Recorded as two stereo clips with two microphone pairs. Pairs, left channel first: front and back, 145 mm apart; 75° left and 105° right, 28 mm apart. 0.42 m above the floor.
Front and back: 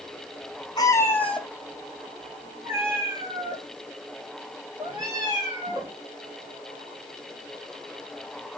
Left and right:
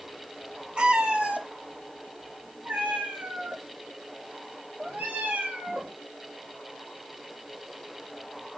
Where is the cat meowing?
60° right, 1.4 m; by 5.9 s 115° right, 7 m.